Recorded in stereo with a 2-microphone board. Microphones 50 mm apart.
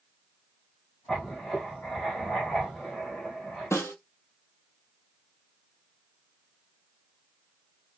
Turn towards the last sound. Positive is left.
turn(degrees=70)  # may be behind; listen again after turning